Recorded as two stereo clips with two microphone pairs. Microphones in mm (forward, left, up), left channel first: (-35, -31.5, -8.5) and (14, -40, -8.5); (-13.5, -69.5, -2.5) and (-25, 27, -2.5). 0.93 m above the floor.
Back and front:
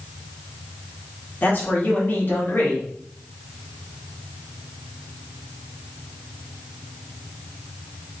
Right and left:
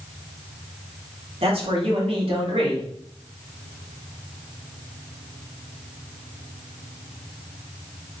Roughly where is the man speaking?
Behind left.